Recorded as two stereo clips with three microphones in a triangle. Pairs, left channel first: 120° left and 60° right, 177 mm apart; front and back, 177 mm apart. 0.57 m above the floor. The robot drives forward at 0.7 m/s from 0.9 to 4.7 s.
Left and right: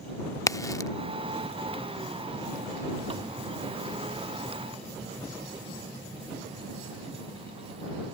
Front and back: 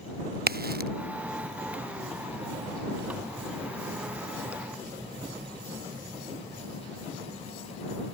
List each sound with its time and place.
0.5 s a crack: 170° right